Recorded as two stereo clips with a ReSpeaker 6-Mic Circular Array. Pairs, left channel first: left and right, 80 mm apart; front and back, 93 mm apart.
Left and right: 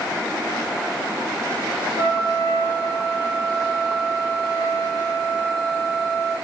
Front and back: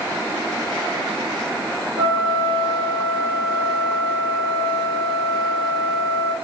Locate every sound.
2.0 s a trumpet: 155° right, 1.7 m